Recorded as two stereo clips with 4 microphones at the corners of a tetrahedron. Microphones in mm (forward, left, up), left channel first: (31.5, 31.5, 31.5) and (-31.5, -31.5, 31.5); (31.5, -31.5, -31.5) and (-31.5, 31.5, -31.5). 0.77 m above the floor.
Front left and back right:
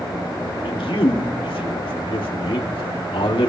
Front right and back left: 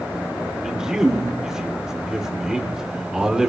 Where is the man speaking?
50° left, 1.7 m.